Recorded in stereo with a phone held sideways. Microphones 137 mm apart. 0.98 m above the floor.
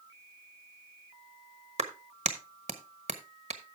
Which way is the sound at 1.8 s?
55° right (ahead or behind).